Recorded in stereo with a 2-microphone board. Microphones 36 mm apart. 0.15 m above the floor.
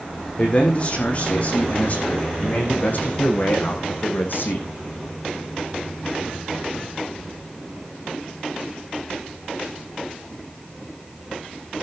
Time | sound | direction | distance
0.4 | a man speaking | 35° left (ahead or behind) | 6 m